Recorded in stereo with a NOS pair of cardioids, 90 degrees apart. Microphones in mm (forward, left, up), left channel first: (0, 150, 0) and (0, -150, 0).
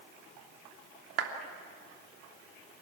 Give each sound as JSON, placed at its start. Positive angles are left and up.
{"t": 1.2, "sound": "a clap", "azimuth_deg": -50, "distance_m": 3.0}